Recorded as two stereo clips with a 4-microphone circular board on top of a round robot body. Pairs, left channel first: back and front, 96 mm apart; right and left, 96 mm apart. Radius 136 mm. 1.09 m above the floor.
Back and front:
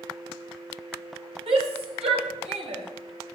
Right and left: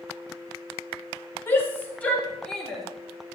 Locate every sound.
1.5 s a shout: 25° right, 4 m; by 2.8 s straight ahead, 4 m